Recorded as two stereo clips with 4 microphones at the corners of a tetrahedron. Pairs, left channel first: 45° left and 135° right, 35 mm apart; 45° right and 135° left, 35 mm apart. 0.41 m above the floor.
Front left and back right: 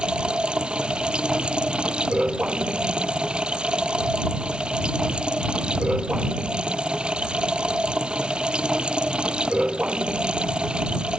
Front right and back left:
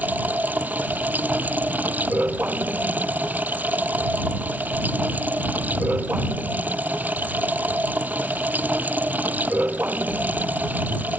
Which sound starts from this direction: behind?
Running water, at 0.0 s.